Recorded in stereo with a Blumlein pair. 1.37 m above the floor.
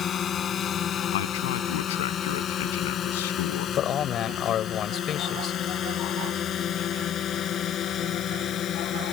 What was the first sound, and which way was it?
A drone, 25° left.